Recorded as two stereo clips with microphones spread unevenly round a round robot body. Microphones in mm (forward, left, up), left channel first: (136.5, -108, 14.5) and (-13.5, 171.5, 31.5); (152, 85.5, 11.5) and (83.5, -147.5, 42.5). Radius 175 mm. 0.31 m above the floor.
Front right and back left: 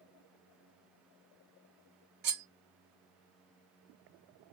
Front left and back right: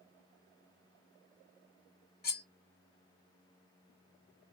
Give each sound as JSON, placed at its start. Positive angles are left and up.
{"t": 2.2, "sound": "cutlery clinking", "azimuth_deg": 75, "distance_m": 0.9}